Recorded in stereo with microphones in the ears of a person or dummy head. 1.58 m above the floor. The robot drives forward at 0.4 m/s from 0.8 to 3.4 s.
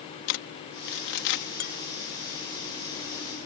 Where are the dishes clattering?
45° left (ahead or behind).